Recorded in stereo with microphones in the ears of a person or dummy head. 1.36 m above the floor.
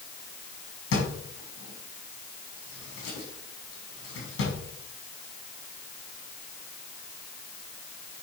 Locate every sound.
0.9 s a drawer: 70° left (ahead or behind), 3.5 m